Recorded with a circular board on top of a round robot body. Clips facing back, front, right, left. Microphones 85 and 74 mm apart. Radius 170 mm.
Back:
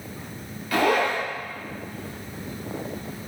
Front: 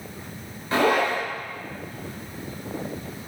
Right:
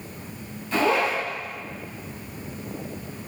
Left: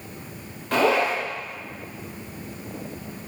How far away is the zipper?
About 3.5 m.